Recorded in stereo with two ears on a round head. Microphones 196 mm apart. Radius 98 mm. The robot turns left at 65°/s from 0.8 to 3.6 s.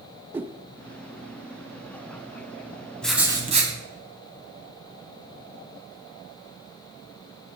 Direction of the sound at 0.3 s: 10° right (ahead or behind).